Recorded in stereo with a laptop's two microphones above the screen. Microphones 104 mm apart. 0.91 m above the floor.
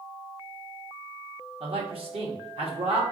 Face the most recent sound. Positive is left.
turn(degrees=-65)  # may be behind; listen again after turning